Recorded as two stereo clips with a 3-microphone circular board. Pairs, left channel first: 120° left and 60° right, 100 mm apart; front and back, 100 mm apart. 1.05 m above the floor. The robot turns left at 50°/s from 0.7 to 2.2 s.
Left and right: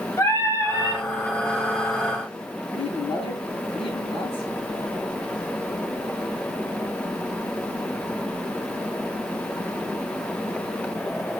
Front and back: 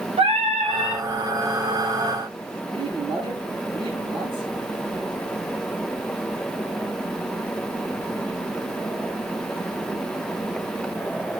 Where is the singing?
Straight behind, 3.5 m; by 1.0 s 160° left, 3.5 m.